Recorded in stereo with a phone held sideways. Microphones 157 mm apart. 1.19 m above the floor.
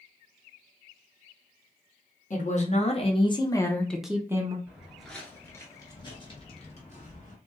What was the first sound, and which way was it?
A woman speaking, 55° left (ahead or behind).